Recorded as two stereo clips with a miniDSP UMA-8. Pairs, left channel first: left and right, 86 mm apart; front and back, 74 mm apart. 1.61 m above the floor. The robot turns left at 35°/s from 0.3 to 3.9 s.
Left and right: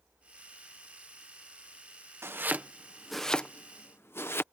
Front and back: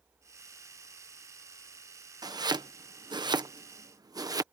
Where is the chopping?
150° right; by 4.4 s 150° left.